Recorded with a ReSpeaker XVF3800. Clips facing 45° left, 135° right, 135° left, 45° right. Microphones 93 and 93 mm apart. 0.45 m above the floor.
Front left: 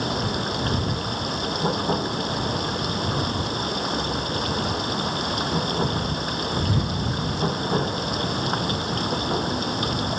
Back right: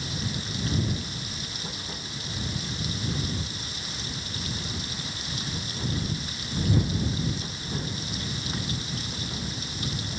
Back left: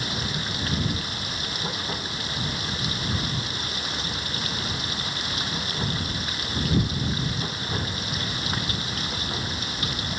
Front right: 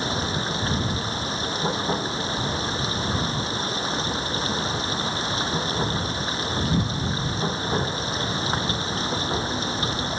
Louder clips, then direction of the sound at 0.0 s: Front left 9 dB, front right 5 dB; 15° left.